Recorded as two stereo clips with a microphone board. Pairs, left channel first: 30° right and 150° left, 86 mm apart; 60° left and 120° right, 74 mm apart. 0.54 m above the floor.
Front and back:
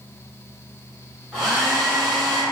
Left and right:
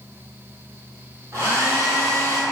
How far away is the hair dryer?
About 1.5 m.